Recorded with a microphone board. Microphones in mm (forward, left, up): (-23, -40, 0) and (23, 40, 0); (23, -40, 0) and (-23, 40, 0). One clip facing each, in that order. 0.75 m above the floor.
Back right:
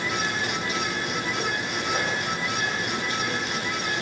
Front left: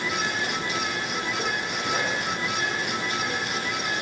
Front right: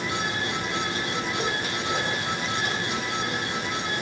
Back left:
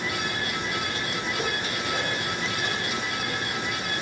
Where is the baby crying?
I don't hear a baby crying.